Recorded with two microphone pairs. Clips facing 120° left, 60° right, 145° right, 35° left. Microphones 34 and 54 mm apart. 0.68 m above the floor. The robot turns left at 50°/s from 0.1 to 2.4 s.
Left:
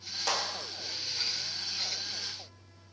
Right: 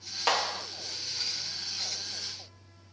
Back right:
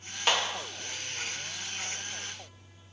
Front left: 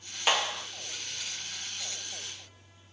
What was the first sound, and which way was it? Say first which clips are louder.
A clap: right 5 dB, even; 40° right.